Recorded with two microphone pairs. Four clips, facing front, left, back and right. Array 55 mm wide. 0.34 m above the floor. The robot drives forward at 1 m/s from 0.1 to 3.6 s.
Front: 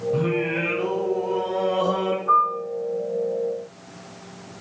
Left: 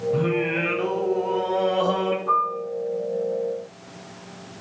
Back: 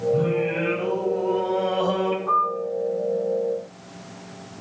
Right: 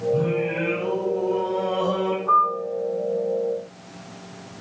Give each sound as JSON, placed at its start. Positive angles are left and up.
{"t": 0.1, "sound": "singing", "azimuth_deg": 70, "distance_m": 1.6}
{"t": 2.3, "sound": "a piano", "azimuth_deg": 170, "distance_m": 5.5}